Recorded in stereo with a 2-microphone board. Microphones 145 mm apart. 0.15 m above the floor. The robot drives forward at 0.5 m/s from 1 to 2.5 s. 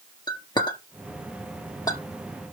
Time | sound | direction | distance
0.3 | a clink | 30° left (ahead or behind) | 2.0 m